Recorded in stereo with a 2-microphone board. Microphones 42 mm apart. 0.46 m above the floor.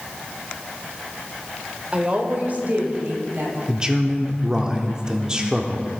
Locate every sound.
1.9 s a woman speaking: 30° right (ahead or behind), 1.5 m; by 3.6 s 55° right (ahead or behind), 2.5 m
3.7 s a man speaking: 20° right (ahead or behind), 0.7 m